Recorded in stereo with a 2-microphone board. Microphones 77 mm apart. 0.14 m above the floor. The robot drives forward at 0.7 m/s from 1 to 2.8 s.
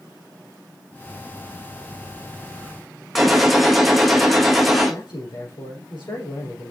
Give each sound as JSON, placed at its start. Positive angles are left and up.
{"t": 3.1, "sound": "a gunshot", "side_deg": 0, "distance_m": 2.0}
{"t": 4.9, "sound": "a man speaking", "side_deg": 70, "distance_m": 4.0}